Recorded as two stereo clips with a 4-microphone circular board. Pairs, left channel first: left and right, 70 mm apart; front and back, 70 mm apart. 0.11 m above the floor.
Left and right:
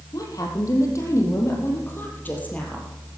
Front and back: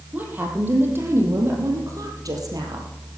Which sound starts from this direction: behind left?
A woman speaking, at 0.1 s.